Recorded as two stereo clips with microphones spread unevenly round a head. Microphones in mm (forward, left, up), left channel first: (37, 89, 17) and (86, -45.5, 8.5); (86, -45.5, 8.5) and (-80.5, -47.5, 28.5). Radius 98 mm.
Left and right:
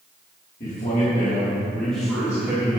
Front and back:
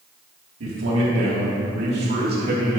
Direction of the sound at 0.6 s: 160° left.